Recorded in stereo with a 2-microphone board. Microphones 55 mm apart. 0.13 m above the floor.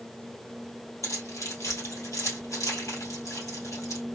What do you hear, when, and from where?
1.0 s keys jangling: 70° left (ahead or behind), 2 m